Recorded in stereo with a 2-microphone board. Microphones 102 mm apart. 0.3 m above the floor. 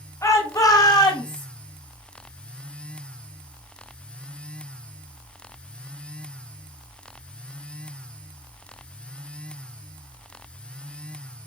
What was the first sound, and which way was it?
A shout, 30° left (ahead or behind).